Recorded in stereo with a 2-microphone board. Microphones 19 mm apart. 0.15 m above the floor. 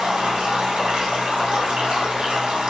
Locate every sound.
0.0 s running water: 75° right (ahead or behind), 1.9 m